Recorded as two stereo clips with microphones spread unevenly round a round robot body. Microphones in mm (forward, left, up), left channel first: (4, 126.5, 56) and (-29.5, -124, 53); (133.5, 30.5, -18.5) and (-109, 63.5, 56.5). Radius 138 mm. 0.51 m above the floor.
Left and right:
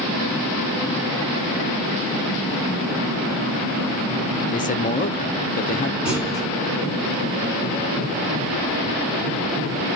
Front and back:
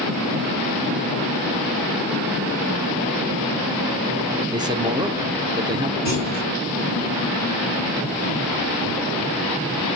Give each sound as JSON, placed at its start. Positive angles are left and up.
{"t": 4.5, "sound": "a man speaking", "azimuth_deg": 80, "distance_m": 0.8}
{"t": 6.0, "sound": "a clunk", "azimuth_deg": 175, "distance_m": 4.0}